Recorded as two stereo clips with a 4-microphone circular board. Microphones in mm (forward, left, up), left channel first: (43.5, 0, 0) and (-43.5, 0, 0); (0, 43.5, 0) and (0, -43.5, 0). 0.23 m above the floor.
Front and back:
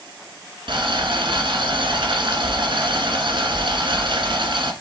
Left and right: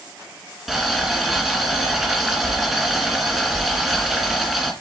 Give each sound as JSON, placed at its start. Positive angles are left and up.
{"t": 0.7, "sound": "boiling", "azimuth_deg": -175, "distance_m": 2.5}